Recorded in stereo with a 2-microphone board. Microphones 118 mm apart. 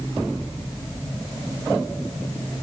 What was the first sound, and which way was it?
Only background noise.